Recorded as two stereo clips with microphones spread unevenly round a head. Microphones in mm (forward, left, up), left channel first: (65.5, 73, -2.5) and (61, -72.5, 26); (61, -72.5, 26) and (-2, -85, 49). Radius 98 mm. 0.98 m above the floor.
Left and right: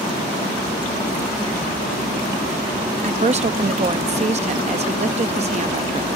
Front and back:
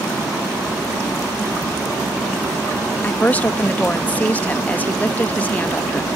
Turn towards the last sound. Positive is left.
turn(degrees=-45)